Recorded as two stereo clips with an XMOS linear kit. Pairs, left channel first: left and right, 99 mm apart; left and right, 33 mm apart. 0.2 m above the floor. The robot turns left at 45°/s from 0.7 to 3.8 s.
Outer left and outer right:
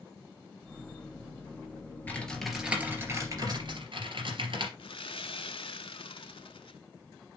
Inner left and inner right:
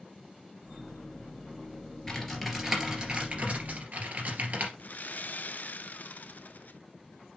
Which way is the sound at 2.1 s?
15° left (ahead or behind).